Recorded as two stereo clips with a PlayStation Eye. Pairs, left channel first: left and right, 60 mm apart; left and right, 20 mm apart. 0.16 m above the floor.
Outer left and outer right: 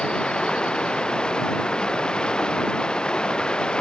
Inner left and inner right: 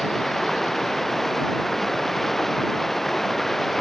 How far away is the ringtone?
No ringtone in this recording.